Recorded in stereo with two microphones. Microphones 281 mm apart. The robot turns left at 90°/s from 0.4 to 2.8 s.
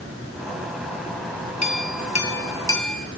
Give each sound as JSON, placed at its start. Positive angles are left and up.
{"t": 1.6, "sound": "a clink", "azimuth_deg": 110, "distance_m": 0.9}